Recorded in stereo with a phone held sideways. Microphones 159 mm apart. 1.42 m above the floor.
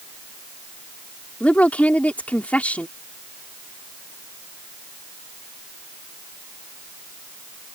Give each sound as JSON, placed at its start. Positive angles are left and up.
{"t": 1.4, "sound": "a woman speaking", "side_deg": 10}